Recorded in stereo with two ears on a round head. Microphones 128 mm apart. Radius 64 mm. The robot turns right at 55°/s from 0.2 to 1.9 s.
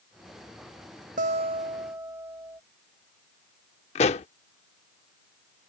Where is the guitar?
60° right; by 2.6 s 20° right.